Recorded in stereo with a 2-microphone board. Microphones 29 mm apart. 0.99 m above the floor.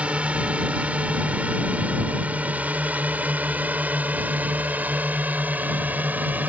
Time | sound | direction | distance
0.0 | a drone | 45° right (ahead or behind) | ?